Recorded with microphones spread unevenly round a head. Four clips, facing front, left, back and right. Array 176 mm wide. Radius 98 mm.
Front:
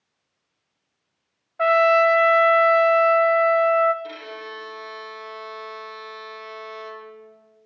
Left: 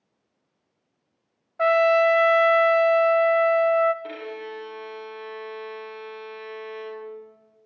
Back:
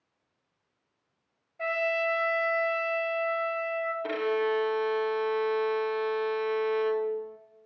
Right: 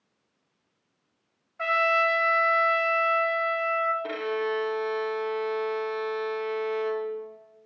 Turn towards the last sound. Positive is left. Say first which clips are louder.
# right 6 dB, back 9 dB
turn(degrees=-135)